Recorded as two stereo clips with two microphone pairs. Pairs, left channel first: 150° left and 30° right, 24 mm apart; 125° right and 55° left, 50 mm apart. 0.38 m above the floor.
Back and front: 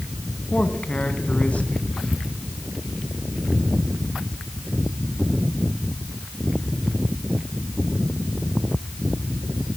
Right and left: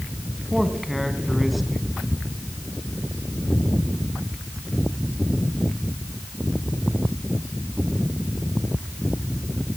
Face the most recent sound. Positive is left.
turn(degrees=145)